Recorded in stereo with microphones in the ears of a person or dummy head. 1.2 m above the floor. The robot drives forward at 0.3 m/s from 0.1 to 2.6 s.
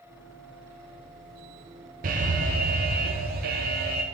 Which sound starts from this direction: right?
An alarm, at 2.0 s.